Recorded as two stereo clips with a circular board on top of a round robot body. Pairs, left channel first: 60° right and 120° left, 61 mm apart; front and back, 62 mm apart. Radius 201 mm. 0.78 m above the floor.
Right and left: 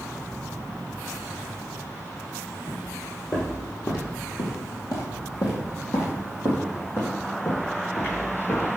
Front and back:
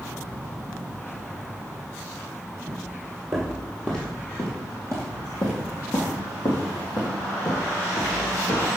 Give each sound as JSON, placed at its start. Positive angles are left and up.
{"t": 2.7, "sound": "footsteps", "azimuth_deg": -105, "distance_m": 1.9}